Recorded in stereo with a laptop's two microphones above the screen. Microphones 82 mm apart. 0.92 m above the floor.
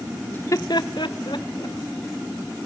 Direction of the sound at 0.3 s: 20° left (ahead or behind).